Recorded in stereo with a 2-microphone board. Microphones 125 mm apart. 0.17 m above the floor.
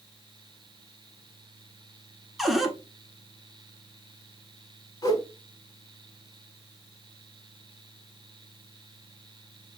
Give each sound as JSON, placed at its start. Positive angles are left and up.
{"t": 2.4, "sound": "a cupboard door", "side_deg": 0, "distance_m": 0.7}
{"t": 5.0, "sound": "a whoosh", "side_deg": 25, "distance_m": 0.9}